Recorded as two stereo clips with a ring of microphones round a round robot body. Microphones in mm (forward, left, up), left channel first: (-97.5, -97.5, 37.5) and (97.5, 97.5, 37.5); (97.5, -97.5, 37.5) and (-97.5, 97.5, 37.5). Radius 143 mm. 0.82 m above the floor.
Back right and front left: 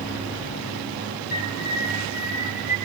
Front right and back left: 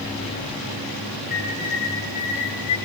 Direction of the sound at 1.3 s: 110° right.